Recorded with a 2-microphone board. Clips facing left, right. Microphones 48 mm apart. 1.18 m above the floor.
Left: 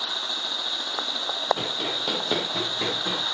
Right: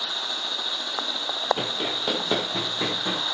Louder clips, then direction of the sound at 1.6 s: Right 1 dB; 15° right (ahead or behind).